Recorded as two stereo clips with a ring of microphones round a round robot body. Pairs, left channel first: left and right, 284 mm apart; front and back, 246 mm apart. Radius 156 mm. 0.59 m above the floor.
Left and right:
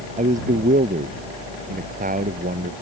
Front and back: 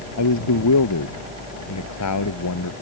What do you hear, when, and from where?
0.2 s a man speaking: 25° right; by 2.7 s 30° right